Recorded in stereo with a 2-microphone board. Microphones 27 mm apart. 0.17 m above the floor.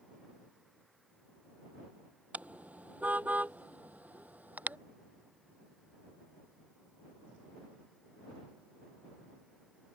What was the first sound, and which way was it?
A car horn, 65° right (ahead or behind).